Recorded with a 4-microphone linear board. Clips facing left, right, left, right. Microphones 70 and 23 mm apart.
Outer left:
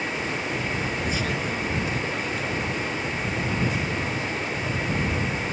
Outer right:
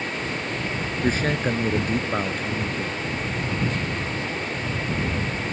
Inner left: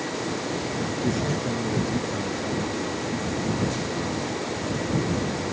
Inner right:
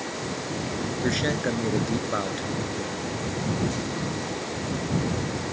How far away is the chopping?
I don't hear chopping.